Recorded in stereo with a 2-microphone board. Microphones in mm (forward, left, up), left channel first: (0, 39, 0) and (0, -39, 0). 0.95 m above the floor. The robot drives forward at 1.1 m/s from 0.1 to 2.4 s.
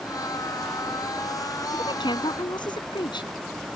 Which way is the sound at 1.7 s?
80° left.